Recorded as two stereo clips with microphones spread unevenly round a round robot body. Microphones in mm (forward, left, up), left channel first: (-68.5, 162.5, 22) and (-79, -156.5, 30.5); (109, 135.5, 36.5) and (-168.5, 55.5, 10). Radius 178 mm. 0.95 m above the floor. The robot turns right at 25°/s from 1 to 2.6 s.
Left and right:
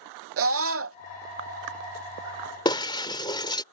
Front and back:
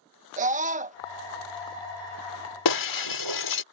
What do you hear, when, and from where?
0.4 s a scream: 115° right
2.6 s breaking glass: 10° left